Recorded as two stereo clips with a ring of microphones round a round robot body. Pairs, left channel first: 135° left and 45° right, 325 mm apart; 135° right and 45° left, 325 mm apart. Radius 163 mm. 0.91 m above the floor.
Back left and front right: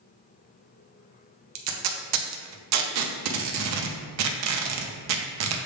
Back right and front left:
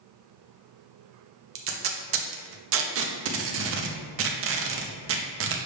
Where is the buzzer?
I don't hear a buzzer.